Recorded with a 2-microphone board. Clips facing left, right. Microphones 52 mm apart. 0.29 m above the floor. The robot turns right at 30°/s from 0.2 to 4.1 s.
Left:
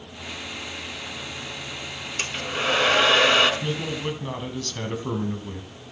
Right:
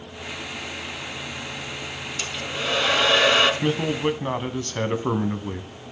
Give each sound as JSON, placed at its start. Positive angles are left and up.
{"t": 2.2, "sound": "a hair dryer", "azimuth_deg": 140, "distance_m": 1.8}
{"t": 3.6, "sound": "a man speaking", "side_deg": -40, "distance_m": 1.7}